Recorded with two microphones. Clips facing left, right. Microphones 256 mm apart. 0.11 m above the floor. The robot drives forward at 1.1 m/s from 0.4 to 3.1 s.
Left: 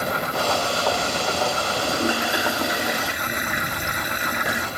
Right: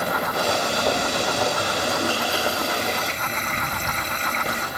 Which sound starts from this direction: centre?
A toilet flushing, at 1.8 s.